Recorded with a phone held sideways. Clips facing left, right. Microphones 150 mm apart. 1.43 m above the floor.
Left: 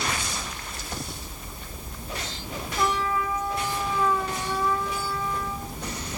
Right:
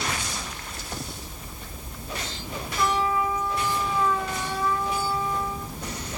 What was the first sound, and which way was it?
A trumpet, 30° left (ahead or behind).